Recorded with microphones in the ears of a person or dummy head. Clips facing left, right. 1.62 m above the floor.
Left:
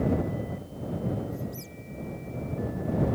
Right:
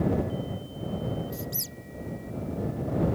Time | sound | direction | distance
1.3 | a squeak | 65° right (ahead or behind) | ?